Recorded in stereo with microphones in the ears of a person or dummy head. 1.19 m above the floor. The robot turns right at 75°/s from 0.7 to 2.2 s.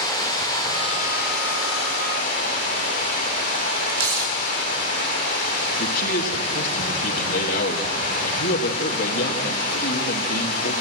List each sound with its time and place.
0.0 s running water: 20° left, 4 m; by 10.8 s 135° left, 4 m
3.9 s tearing paper: 80° right, 3 m
5.8 s a man speaking: 55° left (ahead or behind), 2 m